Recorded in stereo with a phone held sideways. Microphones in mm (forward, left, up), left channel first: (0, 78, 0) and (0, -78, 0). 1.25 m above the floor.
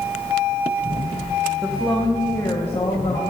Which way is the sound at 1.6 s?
5° right (ahead or behind).